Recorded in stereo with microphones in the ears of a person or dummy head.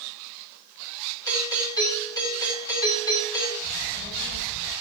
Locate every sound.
1.3 s a doorbell: 15° left (ahead or behind), 7.5 m
3.6 s a child speaking: 40° left (ahead or behind), 8.5 m